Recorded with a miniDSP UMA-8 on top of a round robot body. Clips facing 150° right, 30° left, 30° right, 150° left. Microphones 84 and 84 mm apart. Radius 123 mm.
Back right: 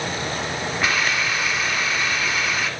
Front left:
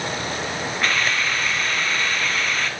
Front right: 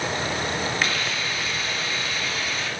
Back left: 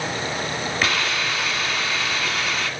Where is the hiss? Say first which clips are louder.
Even, back left 3 dB; 130° left, 1.0 m.